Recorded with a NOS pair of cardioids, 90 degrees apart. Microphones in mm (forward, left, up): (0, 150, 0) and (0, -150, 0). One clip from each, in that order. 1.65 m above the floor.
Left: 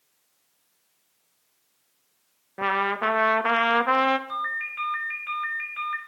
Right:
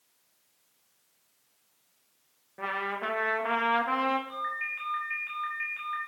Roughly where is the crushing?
I don't hear crushing.